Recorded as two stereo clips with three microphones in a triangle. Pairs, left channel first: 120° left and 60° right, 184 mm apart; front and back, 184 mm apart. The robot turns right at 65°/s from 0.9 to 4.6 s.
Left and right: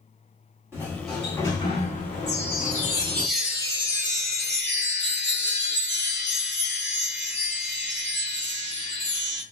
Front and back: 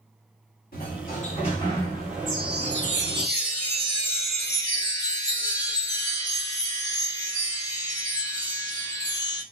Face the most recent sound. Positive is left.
turn(degrees=-70)